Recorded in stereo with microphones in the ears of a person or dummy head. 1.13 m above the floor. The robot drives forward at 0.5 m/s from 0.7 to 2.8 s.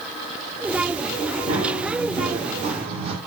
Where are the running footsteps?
30° right (ahead or behind), 5 m; by 3.1 s 25° right (ahead or behind), 3 m.